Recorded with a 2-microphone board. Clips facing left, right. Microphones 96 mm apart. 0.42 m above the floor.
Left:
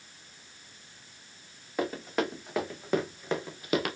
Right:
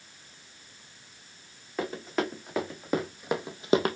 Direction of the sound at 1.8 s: 5° left (ahead or behind).